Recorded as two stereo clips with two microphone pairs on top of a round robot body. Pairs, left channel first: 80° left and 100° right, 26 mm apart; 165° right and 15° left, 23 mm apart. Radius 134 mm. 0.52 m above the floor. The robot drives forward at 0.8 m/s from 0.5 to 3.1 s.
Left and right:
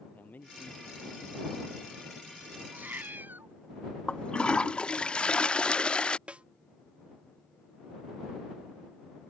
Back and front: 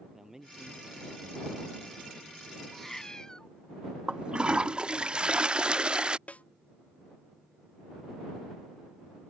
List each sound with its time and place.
0.1 s a man speaking: 85° left; by 2.2 s 90° left
2.7 s a cat meowing: 85° right; by 3.5 s 105° right
4.1 s a toilet flushing: 40° left
6.3 s a snare drum: 140° right